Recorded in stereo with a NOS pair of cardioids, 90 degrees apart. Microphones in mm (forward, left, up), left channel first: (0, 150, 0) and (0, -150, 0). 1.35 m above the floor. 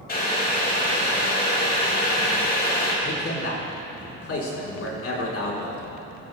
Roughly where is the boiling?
Ahead left.